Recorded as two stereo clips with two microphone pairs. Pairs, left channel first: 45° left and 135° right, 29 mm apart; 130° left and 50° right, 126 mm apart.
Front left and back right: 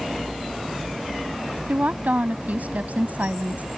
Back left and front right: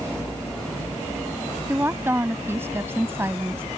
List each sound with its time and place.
1.7 s a woman speaking: 120° right